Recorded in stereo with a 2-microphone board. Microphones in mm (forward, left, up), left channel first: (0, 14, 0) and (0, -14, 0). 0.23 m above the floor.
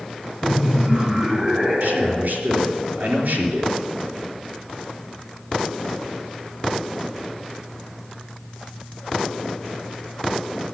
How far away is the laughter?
About 1.3 m.